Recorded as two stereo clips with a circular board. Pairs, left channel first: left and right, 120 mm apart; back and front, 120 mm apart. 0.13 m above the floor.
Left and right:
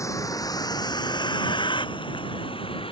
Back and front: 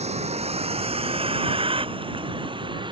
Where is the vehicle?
25° left; by 2.9 s 50° left.